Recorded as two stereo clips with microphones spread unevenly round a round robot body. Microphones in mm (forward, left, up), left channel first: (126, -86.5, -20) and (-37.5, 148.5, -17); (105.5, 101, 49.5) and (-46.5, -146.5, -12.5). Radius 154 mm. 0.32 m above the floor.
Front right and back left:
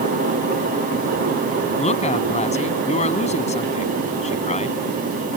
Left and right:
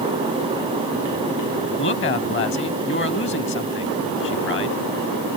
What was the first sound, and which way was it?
A woman speaking, 5° left.